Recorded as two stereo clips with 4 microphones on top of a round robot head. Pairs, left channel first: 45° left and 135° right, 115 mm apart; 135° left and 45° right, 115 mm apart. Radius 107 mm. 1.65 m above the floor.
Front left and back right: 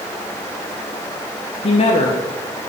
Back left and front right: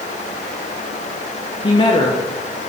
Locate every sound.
1.6 s a woman speaking: 85° left, 0.8 m